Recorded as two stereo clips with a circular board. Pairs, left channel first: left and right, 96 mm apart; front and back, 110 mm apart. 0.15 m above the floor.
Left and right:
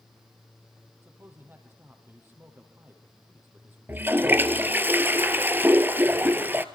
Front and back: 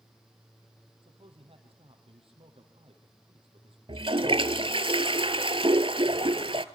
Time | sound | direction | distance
1.0 | a man speaking | 155° right | 5 m
3.9 | a toilet flushing | 155° right | 1.0 m